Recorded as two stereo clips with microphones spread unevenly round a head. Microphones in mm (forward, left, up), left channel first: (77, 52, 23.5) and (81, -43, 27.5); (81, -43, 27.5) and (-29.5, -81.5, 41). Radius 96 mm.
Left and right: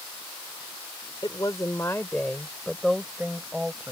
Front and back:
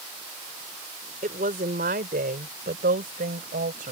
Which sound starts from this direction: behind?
A woman speaking, at 1.2 s.